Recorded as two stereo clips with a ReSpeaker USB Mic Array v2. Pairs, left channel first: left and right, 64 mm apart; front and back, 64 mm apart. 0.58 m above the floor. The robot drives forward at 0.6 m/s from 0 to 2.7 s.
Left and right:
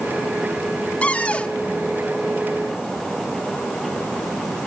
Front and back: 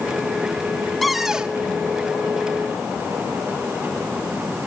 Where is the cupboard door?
85° left, 0.9 m; by 1.6 s 135° left, 1.0 m.